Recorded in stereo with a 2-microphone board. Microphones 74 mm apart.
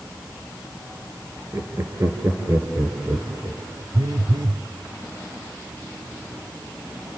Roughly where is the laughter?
Right.